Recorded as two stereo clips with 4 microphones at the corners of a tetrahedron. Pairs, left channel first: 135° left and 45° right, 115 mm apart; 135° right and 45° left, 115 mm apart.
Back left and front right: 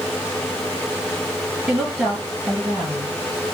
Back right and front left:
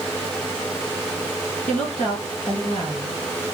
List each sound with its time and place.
1.7 s a woman speaking: 135° right, 2 m